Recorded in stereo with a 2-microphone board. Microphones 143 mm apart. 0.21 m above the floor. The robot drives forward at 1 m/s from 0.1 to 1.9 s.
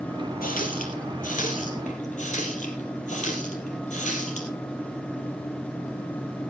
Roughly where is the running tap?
Left.